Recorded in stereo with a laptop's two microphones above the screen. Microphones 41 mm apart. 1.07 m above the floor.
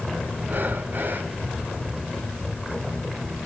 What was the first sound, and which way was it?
Breathing, 55° right (ahead or behind).